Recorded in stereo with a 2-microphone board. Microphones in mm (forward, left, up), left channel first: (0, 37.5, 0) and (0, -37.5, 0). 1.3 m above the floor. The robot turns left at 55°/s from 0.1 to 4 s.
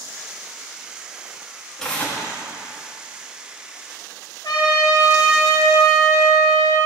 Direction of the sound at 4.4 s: 80° left.